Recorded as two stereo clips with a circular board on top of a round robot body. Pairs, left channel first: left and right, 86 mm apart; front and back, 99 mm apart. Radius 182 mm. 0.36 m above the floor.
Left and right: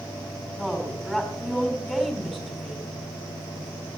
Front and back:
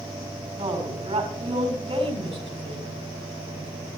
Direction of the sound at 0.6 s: Straight behind.